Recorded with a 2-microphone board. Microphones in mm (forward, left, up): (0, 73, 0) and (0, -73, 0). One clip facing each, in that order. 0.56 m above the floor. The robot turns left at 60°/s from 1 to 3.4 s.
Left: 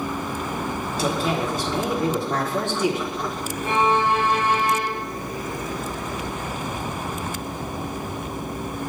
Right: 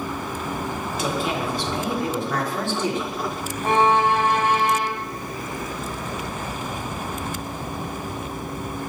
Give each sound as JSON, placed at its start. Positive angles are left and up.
{"t": 0.9, "sound": "a woman speaking", "azimuth_deg": 125, "distance_m": 1.4}
{"t": 3.6, "sound": "a violin", "side_deg": -70, "distance_m": 1.1}